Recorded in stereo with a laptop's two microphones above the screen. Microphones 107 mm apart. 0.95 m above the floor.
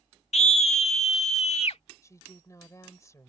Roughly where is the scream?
Left.